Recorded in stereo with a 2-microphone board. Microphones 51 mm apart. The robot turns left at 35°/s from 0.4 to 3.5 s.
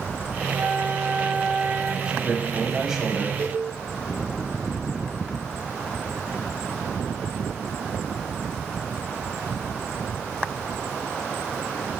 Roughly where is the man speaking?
Centre.